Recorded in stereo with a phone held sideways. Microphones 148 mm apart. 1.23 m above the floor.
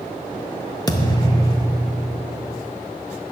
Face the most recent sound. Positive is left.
turn(degrees=25)  # may be behind; listen again after turning